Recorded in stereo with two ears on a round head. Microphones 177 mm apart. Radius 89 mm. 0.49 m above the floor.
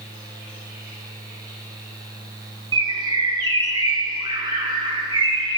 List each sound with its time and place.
2.7 s a bird: 25° right (ahead or behind), 0.9 m